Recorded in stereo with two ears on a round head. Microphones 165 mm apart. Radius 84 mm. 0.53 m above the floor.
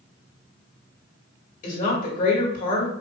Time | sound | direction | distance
1.6 | a woman speaking | 45° left (ahead or behind) | 2 m